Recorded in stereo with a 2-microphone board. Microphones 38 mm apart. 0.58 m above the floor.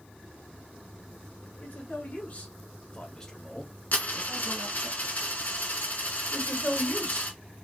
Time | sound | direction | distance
1.6 | a man speaking | 50° left (ahead or behind) | 2.0 m
3.9 | a dropped coin | 45° left (ahead or behind) | 1.6 m
6.3 | a man speaking | 30° left (ahead or behind) | 1.8 m